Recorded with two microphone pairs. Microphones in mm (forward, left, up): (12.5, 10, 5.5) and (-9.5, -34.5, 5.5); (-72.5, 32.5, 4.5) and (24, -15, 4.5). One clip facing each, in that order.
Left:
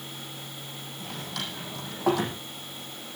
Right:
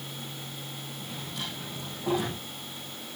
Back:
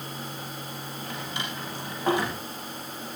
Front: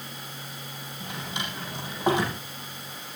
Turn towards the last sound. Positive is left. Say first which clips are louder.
# left 3 dB, front 1 dB
turn(degrees=45)